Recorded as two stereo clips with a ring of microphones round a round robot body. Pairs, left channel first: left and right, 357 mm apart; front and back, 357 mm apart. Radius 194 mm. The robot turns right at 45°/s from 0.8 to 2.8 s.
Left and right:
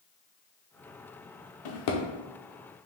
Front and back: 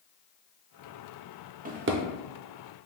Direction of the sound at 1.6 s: 110° left.